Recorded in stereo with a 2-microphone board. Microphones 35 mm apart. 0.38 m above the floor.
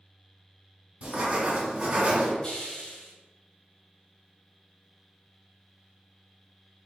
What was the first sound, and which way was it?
Writing, 35° right (ahead or behind).